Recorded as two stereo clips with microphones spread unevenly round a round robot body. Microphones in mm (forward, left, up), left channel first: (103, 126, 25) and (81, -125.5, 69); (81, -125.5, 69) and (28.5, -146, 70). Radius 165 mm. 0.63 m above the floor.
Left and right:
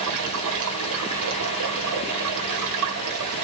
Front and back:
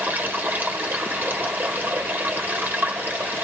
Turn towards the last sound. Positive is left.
turn(degrees=-105)